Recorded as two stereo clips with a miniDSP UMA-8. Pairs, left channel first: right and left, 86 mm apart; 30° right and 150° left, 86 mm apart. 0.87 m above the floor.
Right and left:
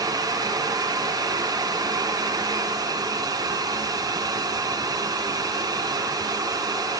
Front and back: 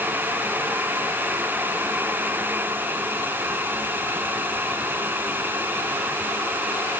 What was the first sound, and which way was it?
Only background noise.